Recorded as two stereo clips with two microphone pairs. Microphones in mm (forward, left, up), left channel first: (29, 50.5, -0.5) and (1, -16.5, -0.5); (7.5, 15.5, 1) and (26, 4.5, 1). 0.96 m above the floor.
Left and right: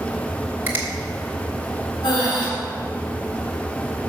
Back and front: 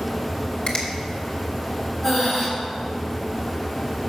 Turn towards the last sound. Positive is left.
turn(degrees=70)